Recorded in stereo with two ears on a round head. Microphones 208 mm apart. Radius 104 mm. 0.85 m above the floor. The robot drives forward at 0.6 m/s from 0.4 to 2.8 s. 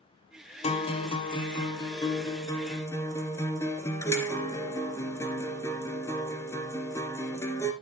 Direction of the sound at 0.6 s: 30° left (ahead or behind).